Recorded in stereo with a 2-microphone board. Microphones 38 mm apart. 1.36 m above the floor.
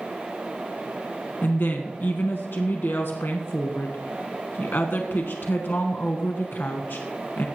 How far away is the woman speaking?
About 1.1 m.